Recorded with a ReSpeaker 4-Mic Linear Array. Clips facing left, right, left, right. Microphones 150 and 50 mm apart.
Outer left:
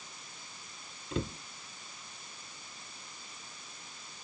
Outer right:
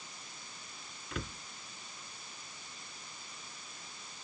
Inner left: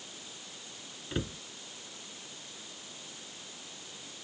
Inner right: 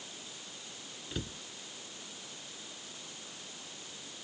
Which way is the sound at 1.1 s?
25° left (ahead or behind).